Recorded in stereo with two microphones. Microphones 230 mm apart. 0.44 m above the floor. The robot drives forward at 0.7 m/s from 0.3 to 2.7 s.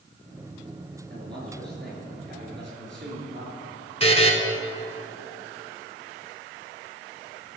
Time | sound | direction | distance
1.1 | a man speaking | 45° right (ahead or behind) | 6.5 m
4.0 | a buzzer | 25° left (ahead or behind) | 2.5 m